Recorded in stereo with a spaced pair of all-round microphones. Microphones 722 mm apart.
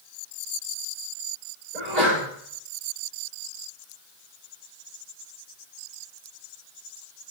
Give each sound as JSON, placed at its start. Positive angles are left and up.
{"t": 1.7, "sound": "a sneeze", "side_deg": -70, "distance_m": 6.5}